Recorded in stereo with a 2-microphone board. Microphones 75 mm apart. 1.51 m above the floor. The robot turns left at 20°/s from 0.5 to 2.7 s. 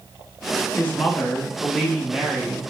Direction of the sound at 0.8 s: 20° left.